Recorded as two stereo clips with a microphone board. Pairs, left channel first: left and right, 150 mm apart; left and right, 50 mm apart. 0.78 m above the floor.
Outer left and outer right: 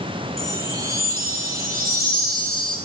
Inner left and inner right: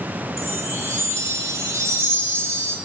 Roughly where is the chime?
Right.